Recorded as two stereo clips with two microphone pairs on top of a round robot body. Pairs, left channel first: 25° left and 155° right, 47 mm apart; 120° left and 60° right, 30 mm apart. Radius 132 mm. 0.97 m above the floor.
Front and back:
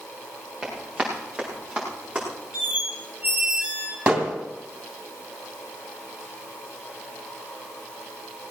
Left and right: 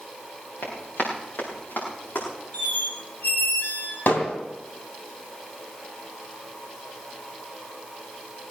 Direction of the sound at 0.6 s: 125° left.